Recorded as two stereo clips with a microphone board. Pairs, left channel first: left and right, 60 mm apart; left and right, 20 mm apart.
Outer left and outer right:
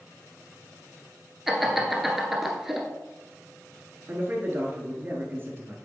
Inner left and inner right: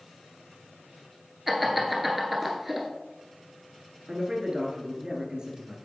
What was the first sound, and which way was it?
Laughter, 5° right (ahead or behind).